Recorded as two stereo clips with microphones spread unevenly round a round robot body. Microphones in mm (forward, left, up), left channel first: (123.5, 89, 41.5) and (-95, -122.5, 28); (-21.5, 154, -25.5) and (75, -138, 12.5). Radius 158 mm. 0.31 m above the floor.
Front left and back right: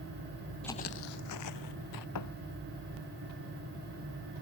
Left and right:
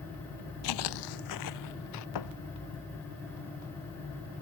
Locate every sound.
0.6 s footsteps: 130° left; by 2.0 s 75° left
2.1 s a thud: 85° left